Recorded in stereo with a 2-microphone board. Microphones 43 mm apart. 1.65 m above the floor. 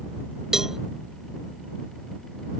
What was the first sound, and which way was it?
A cowbell, 10° right (ahead or behind).